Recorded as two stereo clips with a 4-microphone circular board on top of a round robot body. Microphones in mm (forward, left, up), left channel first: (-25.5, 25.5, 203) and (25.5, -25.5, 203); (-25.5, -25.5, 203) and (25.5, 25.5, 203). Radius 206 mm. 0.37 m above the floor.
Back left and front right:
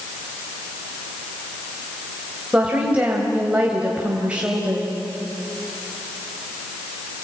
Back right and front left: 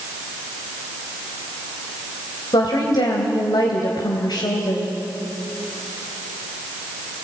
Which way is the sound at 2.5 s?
120° right.